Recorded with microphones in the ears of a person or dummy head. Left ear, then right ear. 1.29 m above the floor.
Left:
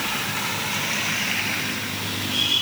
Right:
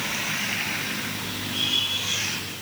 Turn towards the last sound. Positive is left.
No sound to turn to.